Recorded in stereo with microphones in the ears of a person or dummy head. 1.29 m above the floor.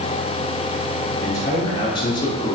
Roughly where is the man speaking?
Centre.